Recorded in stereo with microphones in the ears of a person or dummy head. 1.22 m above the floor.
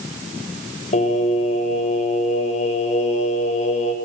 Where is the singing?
40° left (ahead or behind), 6.5 m.